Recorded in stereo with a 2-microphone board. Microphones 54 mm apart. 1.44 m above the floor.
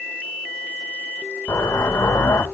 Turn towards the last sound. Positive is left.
turn(degrees=80)